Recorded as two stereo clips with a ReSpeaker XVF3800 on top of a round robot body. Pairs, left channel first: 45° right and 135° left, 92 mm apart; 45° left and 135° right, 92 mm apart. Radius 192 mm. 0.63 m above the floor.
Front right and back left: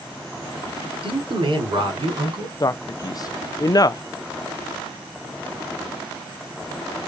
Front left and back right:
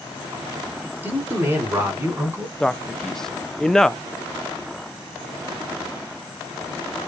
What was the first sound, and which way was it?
A man speaking, 160° left.